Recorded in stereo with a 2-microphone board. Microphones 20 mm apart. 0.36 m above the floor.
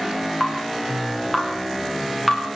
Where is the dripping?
20° left (ahead or behind), 7 m.